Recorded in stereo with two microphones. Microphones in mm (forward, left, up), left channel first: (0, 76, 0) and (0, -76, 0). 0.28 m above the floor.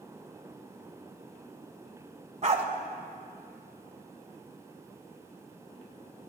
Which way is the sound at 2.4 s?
45° right (ahead or behind).